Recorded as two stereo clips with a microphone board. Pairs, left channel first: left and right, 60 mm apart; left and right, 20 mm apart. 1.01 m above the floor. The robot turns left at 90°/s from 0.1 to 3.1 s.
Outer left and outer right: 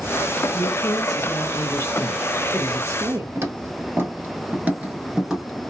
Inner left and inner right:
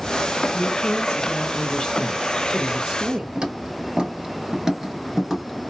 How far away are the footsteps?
About 1.5 m.